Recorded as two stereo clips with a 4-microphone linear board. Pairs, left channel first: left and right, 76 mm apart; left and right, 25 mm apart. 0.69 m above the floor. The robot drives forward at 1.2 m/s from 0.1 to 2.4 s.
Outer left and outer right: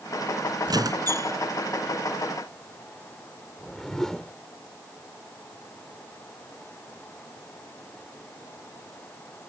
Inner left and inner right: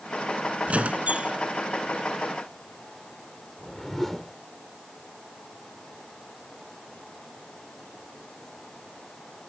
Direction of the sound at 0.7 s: 60° right (ahead or behind).